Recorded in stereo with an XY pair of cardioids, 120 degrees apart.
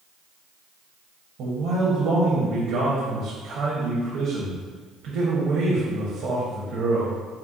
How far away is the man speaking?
About 1.0 m.